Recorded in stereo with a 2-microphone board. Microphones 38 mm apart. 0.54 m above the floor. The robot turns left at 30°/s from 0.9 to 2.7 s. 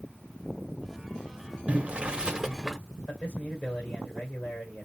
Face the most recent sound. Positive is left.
turn(degrees=40)  # may be behind; listen again after turning